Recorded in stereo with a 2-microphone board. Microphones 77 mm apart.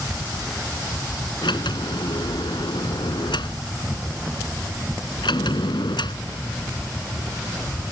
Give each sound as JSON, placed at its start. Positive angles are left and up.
{"t": 1.4, "sound": "a sliding door", "side_deg": 80}